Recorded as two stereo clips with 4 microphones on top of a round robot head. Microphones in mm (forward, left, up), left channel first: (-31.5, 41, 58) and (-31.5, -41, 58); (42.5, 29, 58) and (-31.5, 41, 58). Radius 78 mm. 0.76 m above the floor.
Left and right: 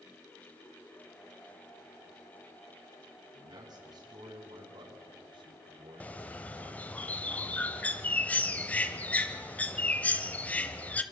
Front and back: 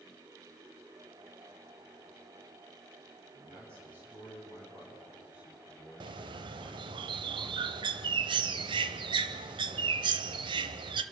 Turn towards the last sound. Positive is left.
turn(degrees=160)